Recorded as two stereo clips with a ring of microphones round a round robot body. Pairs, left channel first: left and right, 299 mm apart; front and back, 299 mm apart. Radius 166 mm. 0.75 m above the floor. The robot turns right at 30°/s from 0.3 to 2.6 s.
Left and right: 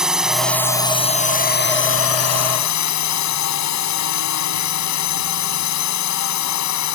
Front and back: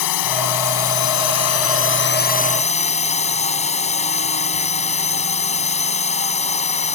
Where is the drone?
Straight ahead; by 7.0 s 65° left.